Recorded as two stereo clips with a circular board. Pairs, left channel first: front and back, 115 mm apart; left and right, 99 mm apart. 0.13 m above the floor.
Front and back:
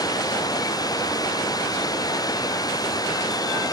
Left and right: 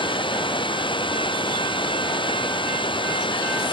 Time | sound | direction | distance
0.0 | running water | 55° left | ?